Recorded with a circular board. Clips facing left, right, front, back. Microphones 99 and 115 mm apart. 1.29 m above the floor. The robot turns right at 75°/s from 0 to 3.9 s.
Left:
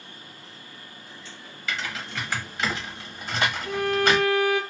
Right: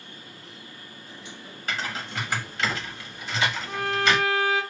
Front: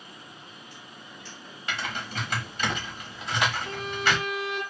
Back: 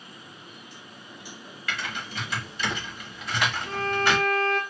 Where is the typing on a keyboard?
60° right, 1.1 m; by 4.2 s 105° left, 1.1 m.